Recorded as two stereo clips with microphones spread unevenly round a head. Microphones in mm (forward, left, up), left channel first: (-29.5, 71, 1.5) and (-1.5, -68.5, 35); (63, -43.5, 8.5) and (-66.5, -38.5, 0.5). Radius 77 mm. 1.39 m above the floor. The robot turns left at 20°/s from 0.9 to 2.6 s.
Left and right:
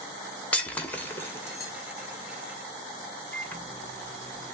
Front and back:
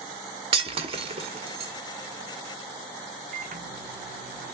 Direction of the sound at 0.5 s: 170° right.